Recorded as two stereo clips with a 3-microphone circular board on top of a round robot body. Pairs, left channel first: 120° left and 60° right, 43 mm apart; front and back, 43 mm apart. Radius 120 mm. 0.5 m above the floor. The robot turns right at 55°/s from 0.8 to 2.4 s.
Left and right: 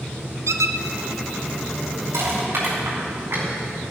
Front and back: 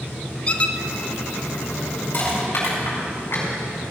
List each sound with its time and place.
0.5 s a squeak: 65° right, 0.8 m
2.1 s crushing: 45° right, 6 m; by 3.5 s 30° right, 6 m